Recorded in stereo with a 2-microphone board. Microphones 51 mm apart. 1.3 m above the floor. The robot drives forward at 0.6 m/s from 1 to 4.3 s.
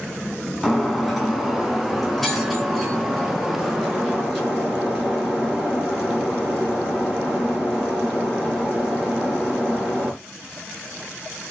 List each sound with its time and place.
0.6 s breaking glass: 5° left (ahead or behind), 2.5 m; by 10.1 s centre (ahead or behind), 4.5 m